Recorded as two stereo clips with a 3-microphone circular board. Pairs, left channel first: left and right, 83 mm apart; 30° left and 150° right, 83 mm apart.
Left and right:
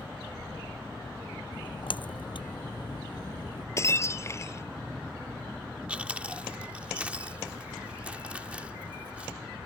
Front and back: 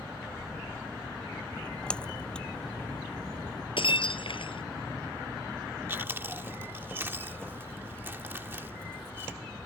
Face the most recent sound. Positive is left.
turn(degrees=-145)